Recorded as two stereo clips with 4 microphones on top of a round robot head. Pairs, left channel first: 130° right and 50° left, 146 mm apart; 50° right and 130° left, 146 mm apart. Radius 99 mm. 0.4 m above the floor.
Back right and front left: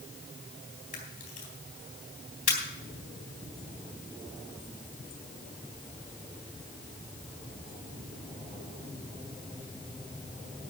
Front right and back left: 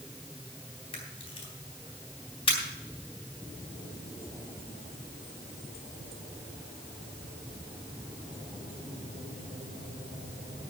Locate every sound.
0.9 s a camera shutter: 100° right, 3.5 m